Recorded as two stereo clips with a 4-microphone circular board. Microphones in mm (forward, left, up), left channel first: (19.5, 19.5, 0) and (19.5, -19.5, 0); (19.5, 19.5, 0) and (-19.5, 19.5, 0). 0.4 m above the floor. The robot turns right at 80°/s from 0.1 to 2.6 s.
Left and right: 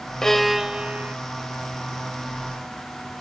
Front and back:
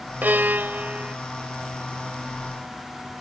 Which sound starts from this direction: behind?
A violin, at 0.2 s.